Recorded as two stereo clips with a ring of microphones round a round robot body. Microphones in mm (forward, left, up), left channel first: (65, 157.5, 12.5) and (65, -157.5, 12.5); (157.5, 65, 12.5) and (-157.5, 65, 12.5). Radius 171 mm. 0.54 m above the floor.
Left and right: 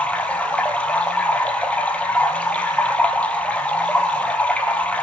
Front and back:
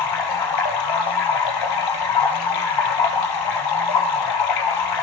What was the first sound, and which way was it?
Running water, 5° left.